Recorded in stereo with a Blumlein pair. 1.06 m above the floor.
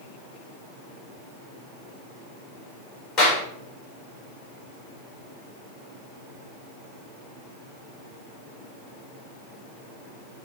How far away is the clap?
About 3.5 m.